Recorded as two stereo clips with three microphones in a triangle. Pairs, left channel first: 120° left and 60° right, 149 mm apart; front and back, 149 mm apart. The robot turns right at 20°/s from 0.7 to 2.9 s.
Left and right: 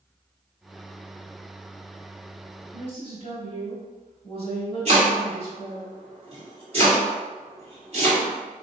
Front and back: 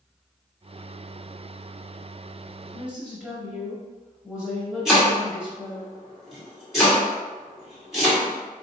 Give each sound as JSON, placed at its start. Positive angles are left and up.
{"t": 2.7, "sound": "a woman speaking", "azimuth_deg": 95, "distance_m": 1.2}
{"t": 4.8, "sound": "chopping", "azimuth_deg": -90, "distance_m": 2.0}